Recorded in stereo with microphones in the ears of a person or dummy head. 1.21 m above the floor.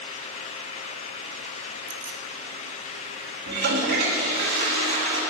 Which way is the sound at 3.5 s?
55° right (ahead or behind).